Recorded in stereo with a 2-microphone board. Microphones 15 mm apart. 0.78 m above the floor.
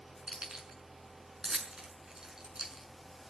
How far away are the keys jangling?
About 5.5 m.